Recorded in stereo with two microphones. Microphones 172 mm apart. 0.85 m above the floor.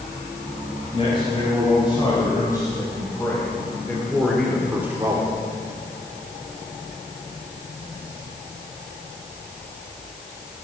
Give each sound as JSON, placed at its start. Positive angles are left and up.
{"t": 0.9, "sound": "a man speaking", "side_deg": 30, "distance_m": 5.0}